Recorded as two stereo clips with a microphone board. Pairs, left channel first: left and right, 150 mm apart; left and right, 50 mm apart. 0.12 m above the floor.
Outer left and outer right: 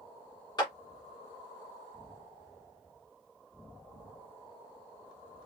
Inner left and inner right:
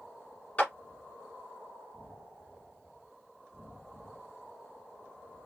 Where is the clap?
30° left (ahead or behind), 1.5 m.